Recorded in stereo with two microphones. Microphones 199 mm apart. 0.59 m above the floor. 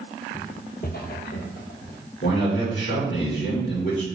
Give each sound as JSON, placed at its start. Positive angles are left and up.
{"t": 0.3, "sound": "footsteps", "side_deg": 40, "distance_m": 0.7}
{"t": 2.2, "sound": "a man speaking", "side_deg": 60, "distance_m": 1.7}